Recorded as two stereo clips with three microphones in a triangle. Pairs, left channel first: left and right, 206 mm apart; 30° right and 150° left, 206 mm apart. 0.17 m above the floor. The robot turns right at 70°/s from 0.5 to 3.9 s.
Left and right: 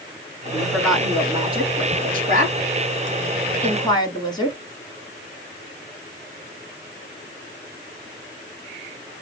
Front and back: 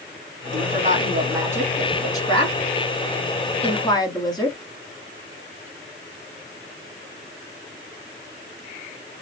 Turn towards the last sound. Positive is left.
turn(degrees=30)